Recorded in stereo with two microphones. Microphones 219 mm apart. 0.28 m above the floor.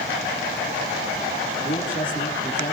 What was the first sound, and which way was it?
A man speaking, 35° left (ahead or behind).